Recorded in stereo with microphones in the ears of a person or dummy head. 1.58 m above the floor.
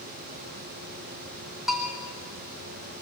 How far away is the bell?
About 4 m.